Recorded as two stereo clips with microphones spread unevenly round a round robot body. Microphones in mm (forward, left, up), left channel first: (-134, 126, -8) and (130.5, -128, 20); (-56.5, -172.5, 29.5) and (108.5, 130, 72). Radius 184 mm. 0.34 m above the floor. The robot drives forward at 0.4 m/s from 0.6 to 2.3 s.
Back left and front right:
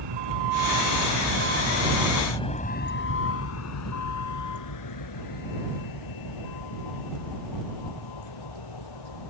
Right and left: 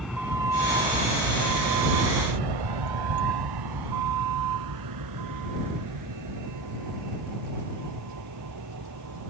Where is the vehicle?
30° right; by 9.3 s 105° left.